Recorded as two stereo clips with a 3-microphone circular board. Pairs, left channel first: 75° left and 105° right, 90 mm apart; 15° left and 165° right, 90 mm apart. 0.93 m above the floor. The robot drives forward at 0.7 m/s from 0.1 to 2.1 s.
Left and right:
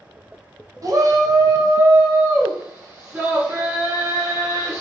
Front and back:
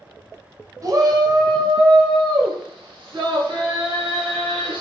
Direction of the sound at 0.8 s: 135° right.